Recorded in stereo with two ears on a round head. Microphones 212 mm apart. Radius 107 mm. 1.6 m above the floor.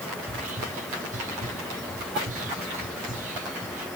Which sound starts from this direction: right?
Whispering, at 0.2 s.